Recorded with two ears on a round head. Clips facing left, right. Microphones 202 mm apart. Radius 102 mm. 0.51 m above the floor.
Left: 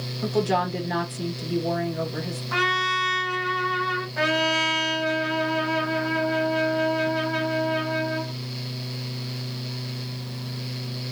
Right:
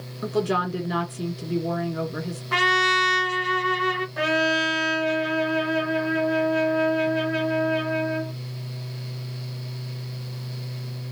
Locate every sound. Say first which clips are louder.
0.2 s a woman speaking: left 1 dB; 10° right (ahead or behind), 1.5 m
2.5 s a trumpet: right 5 dB; 45° right (ahead or behind), 0.5 m
4.2 s a trumpet: even; centre (ahead or behind), 0.7 m